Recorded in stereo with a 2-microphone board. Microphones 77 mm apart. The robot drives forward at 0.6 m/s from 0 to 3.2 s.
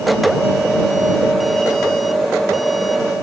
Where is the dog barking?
I don't hear a dog barking.